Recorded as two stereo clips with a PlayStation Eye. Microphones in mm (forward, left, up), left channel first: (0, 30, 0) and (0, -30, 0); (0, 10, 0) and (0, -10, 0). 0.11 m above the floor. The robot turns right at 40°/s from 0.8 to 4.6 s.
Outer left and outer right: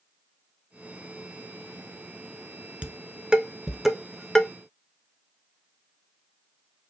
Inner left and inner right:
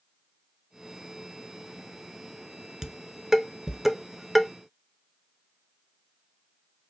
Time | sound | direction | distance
2.8 | dishes clattering | 20° right (ahead or behind) | 0.8 m